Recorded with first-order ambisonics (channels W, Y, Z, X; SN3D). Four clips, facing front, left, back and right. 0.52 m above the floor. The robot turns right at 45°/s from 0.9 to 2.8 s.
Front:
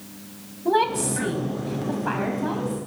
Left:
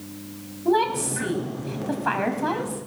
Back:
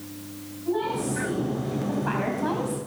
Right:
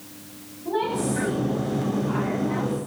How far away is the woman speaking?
About 4 m.